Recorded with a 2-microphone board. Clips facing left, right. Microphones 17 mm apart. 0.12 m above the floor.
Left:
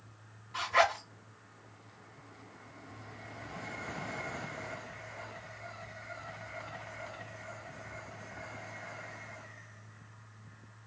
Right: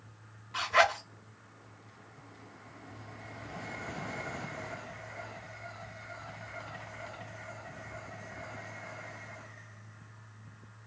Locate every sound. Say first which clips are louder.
0.5 s a zipper: right 2 dB; 30° right (ahead or behind), 2.5 m